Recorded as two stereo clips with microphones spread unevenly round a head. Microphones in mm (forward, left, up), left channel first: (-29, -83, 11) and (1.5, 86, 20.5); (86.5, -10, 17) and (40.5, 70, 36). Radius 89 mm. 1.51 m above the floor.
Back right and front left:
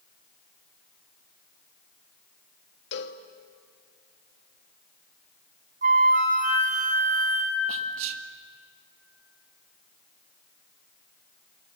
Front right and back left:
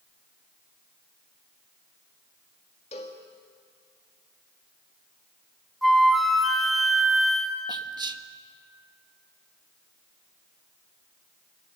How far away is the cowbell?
About 1.6 m.